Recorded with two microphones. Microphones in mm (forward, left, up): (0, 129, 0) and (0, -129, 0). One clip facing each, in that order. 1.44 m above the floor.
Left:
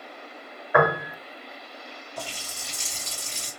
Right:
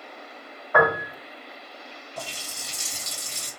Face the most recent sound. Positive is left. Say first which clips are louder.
# even
turn(degrees=-45)  # may be behind; listen again after turning